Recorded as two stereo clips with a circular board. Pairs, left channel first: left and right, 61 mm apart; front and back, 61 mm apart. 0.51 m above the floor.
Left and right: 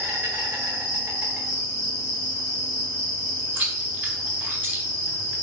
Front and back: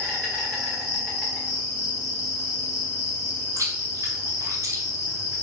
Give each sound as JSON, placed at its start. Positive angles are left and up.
{"t": 0.0, "sound": "an insect", "azimuth_deg": -50, "distance_m": 1.7}
{"t": 3.6, "sound": "chewing", "azimuth_deg": -145, "distance_m": 1.0}